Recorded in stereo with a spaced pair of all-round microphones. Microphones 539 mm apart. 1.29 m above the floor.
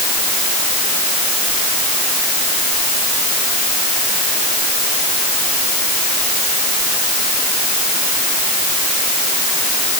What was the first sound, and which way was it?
Only background noise.